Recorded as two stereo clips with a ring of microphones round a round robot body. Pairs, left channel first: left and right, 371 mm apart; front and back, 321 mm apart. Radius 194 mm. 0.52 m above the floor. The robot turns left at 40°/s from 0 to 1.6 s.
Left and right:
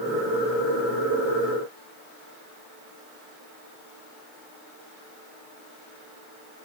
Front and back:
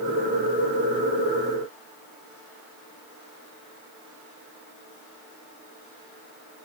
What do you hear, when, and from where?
Only background noise.